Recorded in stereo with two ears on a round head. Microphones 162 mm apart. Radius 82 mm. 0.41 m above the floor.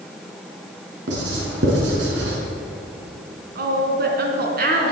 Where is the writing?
80° right, 5 m.